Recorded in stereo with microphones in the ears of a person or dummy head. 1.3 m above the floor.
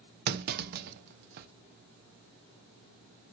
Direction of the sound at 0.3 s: 55° right (ahead or behind).